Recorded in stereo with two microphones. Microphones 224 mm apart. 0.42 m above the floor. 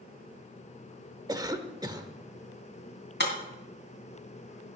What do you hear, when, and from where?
1.3 s a cough: 20° right (ahead or behind), 1.0 m
3.2 s breaking glass: 55° left (ahead or behind), 2 m